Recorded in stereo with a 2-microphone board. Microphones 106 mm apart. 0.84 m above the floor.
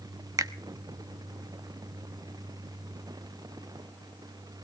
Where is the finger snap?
35° right (ahead or behind), 0.8 m.